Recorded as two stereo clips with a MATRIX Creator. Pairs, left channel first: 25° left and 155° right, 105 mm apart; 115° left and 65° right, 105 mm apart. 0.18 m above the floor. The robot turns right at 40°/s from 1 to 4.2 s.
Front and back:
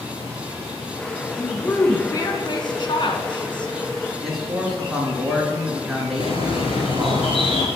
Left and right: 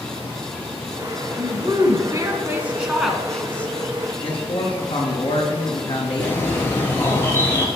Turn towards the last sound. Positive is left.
turn(degrees=45)